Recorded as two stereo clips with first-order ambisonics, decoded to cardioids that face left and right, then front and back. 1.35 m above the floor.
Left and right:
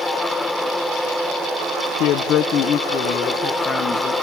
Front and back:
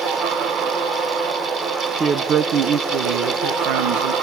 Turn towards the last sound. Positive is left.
turn(degrees=165)